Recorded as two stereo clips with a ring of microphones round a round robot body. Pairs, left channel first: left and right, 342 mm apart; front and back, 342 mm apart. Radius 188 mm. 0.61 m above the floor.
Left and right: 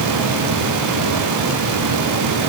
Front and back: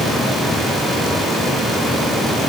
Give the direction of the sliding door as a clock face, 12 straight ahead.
I don't hear a sliding door.